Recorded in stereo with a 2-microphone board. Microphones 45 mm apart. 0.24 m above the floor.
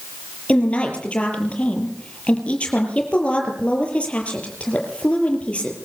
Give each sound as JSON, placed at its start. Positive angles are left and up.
{"t": 0.5, "sound": "a woman speaking", "side_deg": 25, "distance_m": 6.5}